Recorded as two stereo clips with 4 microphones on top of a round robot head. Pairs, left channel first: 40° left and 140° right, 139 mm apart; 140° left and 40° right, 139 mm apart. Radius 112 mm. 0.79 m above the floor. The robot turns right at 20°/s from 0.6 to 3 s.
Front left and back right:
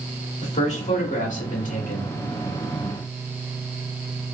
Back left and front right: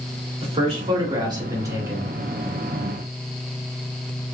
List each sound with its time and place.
0.4 s a man speaking: 5° left, 1.8 m; by 2.1 s 35° left, 1.8 m